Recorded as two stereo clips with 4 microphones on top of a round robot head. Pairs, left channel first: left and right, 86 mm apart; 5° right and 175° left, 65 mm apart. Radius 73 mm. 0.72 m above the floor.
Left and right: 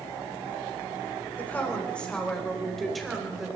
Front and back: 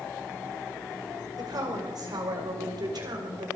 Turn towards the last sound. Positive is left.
turn(degrees=-175)